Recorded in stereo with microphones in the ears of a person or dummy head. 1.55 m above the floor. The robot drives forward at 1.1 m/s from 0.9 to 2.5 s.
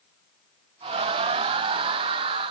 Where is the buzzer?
No buzzer in this recording.